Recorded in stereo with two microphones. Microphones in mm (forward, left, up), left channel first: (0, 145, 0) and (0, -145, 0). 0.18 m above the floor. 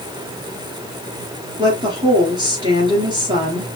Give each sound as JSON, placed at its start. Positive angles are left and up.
{"t": 1.6, "sound": "a woman speaking", "side_deg": -15, "distance_m": 3.0}